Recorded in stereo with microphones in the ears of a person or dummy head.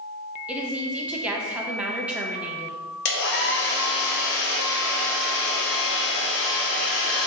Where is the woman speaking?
10° right (ahead or behind), 0.5 m.